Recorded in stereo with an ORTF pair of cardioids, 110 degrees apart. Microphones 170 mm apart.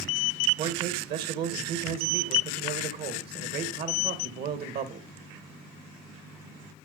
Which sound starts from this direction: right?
A man speaking, at 0.6 s.